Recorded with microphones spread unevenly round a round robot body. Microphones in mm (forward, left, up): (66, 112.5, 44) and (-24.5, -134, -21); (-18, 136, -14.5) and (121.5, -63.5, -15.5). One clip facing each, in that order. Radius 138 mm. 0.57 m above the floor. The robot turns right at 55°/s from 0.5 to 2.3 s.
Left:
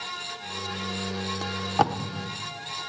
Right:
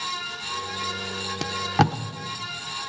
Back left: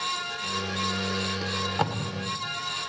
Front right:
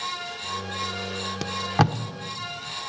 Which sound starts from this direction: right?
Tape being pulled, at 1.4 s.